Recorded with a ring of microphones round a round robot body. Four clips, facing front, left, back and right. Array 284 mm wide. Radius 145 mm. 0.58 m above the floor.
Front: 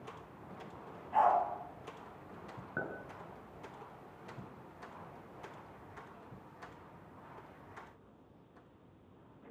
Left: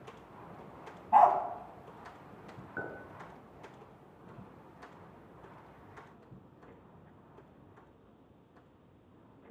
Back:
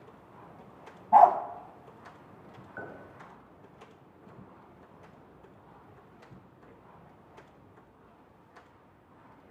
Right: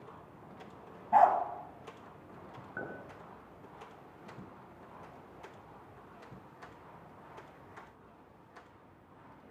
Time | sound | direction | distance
1.1 | a dog barking | 160° right | 1.1 m
2.8 | a clink | 5° left | 6 m